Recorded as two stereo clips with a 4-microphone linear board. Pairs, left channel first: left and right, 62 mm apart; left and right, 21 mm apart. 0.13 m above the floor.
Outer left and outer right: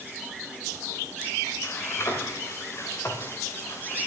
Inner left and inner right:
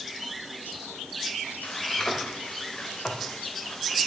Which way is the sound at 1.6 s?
45° left (ahead or behind).